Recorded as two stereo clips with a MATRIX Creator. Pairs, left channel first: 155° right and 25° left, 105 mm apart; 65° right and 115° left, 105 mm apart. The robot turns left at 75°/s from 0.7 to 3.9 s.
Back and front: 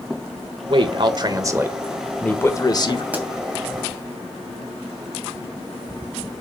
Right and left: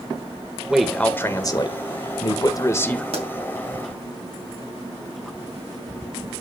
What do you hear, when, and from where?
0.7 s a man speaking: 30° left, 1.2 m; by 3.0 s 145° right, 1.2 m
3.1 s a pop: 95° left, 2.5 m; by 3.3 s 85° left, 2.5 m